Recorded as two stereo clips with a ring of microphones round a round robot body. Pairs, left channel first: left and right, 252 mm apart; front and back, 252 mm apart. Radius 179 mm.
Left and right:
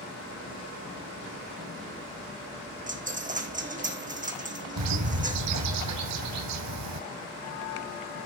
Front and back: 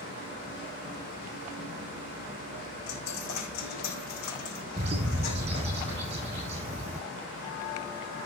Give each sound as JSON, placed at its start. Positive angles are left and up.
{"t": 2.9, "sound": "a dropped coin", "azimuth_deg": -30, "distance_m": 2.5}
{"t": 4.8, "sound": "a bird", "azimuth_deg": -105, "distance_m": 2.5}